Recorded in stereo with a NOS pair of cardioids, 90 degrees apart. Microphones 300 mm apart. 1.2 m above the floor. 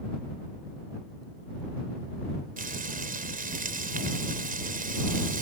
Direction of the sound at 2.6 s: 30° right.